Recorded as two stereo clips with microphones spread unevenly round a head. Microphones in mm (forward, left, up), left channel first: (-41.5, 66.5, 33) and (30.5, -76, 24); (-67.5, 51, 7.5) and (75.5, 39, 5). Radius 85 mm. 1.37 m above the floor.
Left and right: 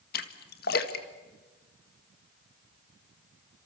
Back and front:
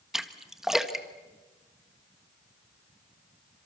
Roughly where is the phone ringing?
No phone ringing in this recording.